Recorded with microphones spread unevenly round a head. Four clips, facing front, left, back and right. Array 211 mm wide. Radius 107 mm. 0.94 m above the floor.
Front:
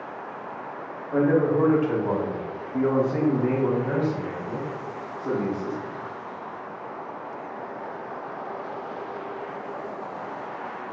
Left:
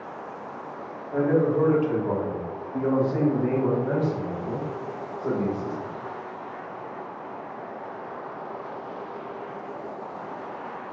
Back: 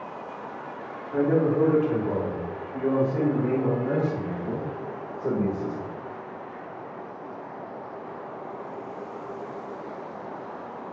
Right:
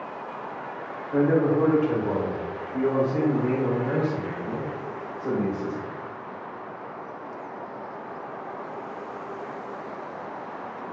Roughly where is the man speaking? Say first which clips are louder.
Right 1 dB, front 1 dB; ahead.